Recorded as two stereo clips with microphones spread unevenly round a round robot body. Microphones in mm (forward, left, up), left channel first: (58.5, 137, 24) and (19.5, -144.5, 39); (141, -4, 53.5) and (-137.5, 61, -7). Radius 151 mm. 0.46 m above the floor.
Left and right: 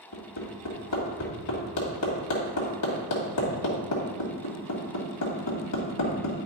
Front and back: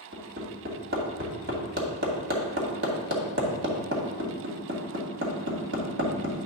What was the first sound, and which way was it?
Hammering, 115° left.